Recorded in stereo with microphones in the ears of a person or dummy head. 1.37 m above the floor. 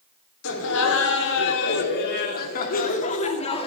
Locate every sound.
0.4 s laughter: 80° left, 3.5 m; by 3.7 s 35° left (ahead or behind), 2.5 m